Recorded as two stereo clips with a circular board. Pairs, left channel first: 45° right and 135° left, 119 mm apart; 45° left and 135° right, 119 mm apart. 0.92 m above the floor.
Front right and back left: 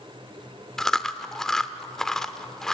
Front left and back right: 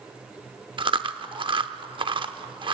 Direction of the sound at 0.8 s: 130° right.